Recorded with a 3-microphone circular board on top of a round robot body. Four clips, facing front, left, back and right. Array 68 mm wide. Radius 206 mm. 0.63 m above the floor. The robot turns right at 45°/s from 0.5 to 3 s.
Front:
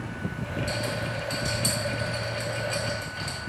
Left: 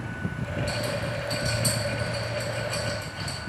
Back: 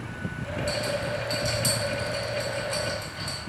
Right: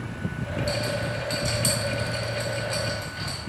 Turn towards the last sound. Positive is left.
turn(degrees=-35)